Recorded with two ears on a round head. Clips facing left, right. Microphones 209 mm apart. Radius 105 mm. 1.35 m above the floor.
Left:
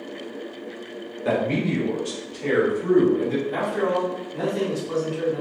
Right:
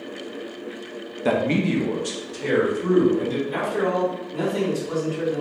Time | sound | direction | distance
1.2 | a man speaking | 55° right (ahead or behind) | 0.7 m
3.5 | a man speaking | 70° right (ahead or behind) | 1.8 m